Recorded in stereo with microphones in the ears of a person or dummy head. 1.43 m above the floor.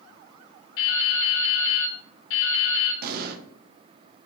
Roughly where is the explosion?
Right.